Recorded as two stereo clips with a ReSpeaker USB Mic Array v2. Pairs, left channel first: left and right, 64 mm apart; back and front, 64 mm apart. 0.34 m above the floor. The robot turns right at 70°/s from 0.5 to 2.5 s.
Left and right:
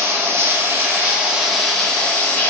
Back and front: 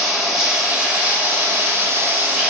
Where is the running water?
85° right, 0.8 m; by 2.5 s 55° left, 0.8 m.